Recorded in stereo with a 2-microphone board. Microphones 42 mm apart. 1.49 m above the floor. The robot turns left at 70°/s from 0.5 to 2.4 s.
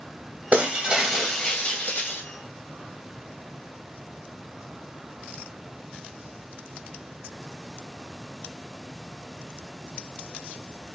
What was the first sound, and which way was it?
Breaking glass, 125° right.